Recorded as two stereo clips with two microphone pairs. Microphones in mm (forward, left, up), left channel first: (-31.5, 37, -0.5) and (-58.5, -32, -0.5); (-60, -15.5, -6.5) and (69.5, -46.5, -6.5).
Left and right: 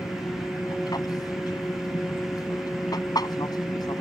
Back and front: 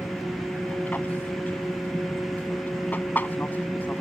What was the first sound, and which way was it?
An aircraft, 90° left.